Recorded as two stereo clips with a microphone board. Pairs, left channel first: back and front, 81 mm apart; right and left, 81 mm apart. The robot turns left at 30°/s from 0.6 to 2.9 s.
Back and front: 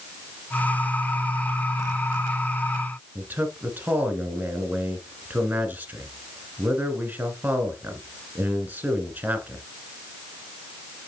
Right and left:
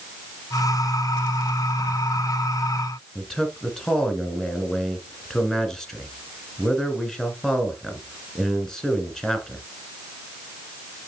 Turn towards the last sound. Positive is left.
turn(degrees=-15)